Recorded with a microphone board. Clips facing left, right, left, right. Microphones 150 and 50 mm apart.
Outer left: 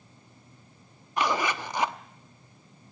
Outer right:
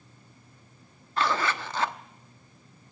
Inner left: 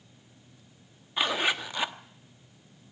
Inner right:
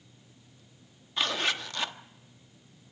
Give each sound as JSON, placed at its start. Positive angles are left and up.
{"t": 1.2, "sound": "a zipper", "side_deg": 15, "distance_m": 0.9}